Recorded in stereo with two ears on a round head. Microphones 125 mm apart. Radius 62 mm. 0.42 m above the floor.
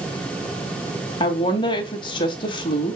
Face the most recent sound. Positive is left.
turn(degrees=35)  # may be behind; listen again after turning